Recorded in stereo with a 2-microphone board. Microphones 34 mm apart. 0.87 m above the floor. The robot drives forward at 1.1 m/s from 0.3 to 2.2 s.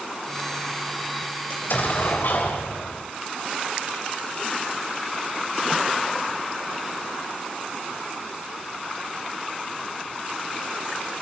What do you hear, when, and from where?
1.5 s an explosion: 60° left (ahead or behind), 3.5 m; by 3.0 s 70° left (ahead or behind), 3.5 m